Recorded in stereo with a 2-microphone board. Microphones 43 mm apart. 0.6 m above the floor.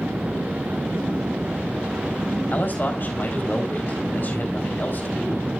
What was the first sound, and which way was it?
A man speaking, 45° left (ahead or behind).